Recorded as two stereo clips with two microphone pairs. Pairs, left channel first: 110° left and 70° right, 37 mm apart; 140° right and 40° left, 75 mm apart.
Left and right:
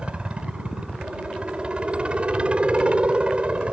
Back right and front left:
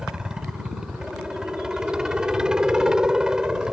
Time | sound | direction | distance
0.0 | a helicopter | 35° right | ?